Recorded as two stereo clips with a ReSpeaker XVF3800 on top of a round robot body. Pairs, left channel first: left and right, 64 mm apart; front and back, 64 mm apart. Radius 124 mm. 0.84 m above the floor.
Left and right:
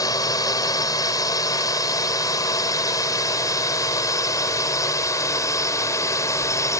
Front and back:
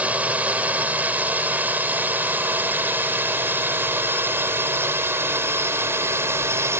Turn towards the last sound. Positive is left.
turn(degrees=130)